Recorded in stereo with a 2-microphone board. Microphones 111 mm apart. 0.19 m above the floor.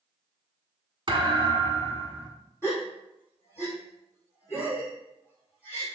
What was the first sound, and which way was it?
A thud, 45° right (ahead or behind).